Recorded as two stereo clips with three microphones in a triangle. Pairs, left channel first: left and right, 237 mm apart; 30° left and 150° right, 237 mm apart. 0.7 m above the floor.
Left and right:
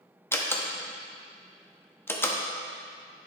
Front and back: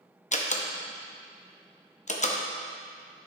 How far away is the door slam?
About 0.7 m.